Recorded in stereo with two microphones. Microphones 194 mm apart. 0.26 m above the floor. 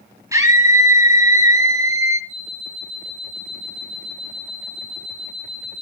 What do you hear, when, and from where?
0.3 s a scream: 15° right (ahead or behind), 1.9 m
2.3 s an alarm clock: 60° left (ahead or behind), 9 m